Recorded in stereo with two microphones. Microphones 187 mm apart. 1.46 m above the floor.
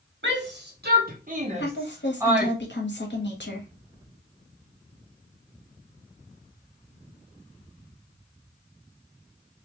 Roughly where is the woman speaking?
Left.